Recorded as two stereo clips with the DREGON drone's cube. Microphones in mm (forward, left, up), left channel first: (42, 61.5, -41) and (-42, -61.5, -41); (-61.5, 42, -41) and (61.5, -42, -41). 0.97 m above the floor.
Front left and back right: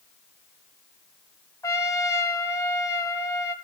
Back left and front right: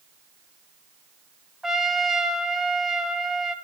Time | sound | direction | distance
1.6 | a trumpet | 50° left | 0.7 m